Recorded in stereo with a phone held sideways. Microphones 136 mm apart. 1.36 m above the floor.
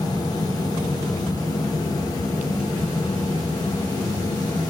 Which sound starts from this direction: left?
A fan, at 0.0 s.